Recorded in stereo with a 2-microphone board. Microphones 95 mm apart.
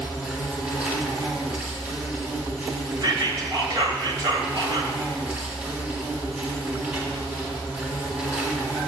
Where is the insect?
15° right (ahead or behind), 4.5 m.